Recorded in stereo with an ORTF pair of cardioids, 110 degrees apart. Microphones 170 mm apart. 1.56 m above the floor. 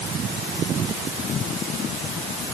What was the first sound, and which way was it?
Only background noise.